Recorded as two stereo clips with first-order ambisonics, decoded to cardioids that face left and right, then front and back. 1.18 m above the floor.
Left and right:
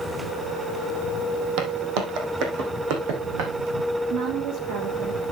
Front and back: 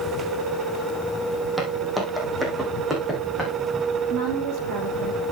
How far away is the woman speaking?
About 2.5 m.